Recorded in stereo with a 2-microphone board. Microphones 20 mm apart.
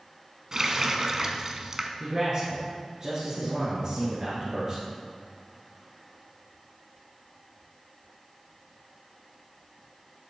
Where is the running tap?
30° right (ahead or behind), 0.7 m.